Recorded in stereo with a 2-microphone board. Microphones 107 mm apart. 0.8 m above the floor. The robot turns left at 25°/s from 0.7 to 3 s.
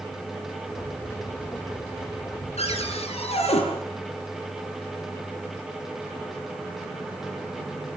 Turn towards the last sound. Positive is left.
turn(degrees=75)  # may be behind; listen again after turning